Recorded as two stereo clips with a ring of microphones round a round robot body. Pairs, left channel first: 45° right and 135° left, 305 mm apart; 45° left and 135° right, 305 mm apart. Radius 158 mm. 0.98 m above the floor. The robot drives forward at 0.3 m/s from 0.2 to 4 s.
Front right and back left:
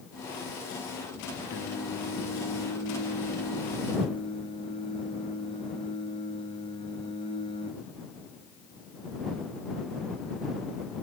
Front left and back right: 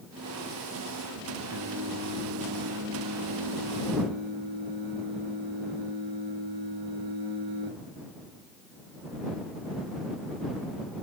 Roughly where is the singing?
Right.